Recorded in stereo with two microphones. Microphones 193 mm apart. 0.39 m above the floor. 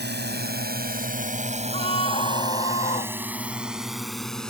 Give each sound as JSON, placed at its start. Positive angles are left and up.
{"t": 0.0, "sound": "a drone", "side_deg": -65}
{"t": 1.7, "sound": "a scream", "side_deg": 35}